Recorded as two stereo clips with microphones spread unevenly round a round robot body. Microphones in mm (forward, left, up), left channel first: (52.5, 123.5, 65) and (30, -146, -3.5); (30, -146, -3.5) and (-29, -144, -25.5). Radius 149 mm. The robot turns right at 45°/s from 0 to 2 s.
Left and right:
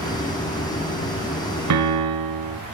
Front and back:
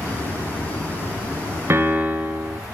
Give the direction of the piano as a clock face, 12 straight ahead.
4 o'clock.